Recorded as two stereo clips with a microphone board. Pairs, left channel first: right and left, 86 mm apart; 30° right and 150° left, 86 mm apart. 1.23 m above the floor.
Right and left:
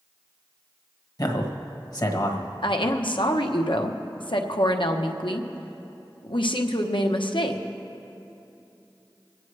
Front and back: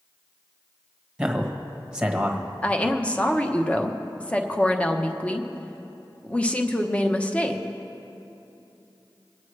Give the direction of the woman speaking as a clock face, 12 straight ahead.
3 o'clock.